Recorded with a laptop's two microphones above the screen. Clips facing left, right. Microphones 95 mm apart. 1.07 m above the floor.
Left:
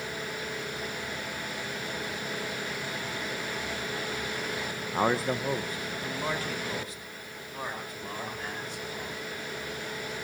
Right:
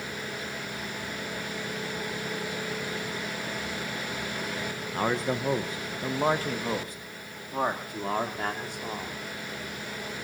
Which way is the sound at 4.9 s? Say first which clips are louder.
Left 1 dB; 20° left (ahead or behind).